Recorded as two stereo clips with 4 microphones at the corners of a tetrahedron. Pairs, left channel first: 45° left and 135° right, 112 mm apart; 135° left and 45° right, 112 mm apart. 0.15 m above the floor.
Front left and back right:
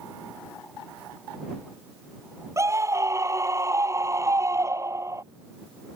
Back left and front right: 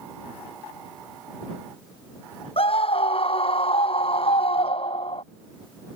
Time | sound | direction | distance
2.6 | a scream | 165° left | ?